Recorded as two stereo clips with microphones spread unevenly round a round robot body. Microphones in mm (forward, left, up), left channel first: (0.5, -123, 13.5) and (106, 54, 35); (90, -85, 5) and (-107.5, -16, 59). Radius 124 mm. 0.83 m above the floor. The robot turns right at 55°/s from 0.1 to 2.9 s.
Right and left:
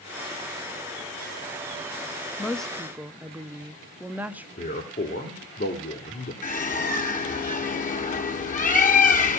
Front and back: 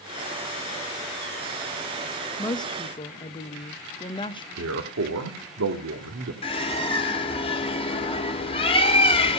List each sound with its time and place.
2.4 s a woman speaking: 55° right, 1.0 m; by 4.5 s 25° right, 1.0 m
4.6 s a man speaking: straight behind, 1.7 m
6.4 s a bird: 75° right, 2 m